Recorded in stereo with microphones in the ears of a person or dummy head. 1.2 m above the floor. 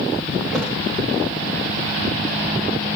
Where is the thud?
Centre (ahead or behind), 1.4 m.